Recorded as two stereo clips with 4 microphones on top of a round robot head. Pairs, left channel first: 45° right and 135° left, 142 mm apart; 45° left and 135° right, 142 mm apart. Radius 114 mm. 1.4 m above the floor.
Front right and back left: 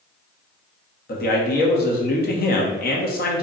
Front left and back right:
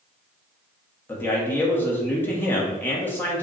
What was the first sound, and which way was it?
A man speaking, 30° right.